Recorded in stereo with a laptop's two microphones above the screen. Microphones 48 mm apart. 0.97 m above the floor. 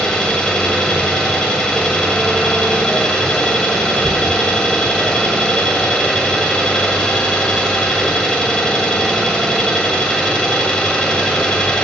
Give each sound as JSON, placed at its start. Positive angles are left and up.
{"t": 0.0, "sound": "an engine running", "side_deg": 15, "distance_m": 1.4}